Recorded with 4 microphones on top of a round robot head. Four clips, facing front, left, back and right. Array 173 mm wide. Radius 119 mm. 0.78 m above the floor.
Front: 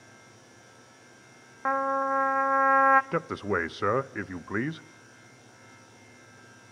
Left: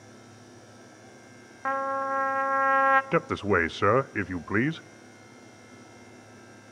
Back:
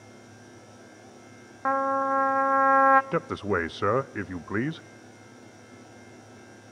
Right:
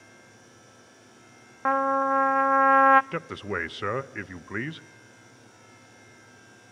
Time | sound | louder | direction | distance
1.6 | a trumpet | right 5 dB, back 2 dB | 115° right | 0.9 m
3.1 | a man speaking | left 7 dB, back 2 dB | 95° left | 0.6 m